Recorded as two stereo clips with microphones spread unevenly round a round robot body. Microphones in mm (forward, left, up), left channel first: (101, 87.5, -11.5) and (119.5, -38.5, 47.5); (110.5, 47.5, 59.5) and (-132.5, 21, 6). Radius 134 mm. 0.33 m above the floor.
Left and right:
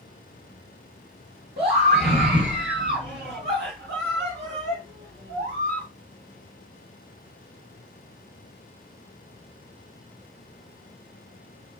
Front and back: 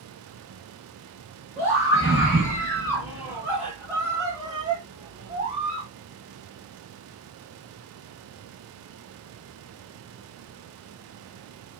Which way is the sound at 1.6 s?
90° right.